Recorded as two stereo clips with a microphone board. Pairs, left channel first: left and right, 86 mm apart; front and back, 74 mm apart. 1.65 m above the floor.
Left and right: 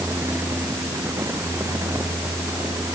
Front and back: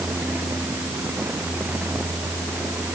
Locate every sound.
Only background noise.